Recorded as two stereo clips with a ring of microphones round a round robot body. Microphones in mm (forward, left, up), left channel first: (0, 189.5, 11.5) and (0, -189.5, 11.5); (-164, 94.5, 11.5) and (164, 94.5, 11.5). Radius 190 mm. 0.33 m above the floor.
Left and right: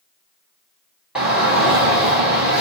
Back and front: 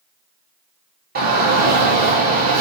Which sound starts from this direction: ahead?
A shout, at 1.1 s.